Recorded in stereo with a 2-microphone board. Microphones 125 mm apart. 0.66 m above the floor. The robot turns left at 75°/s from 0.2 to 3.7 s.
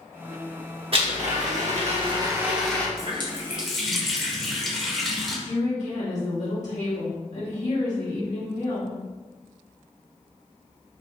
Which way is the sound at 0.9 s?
50° right.